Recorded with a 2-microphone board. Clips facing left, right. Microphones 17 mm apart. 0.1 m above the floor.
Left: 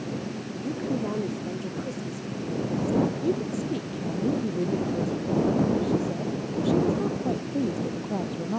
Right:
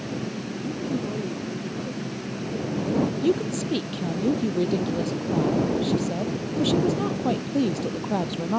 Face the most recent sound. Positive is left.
turn(degrees=-65)  # may be behind; listen again after turning